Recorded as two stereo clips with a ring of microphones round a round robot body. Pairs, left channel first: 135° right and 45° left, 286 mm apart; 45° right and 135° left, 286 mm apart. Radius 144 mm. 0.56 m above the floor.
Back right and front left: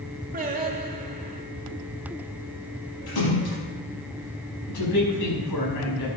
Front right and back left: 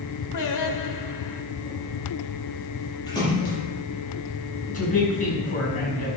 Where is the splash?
120° right, 7.5 m.